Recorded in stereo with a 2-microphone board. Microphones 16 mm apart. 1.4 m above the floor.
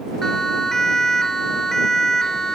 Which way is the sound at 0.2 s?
30° left (ahead or behind).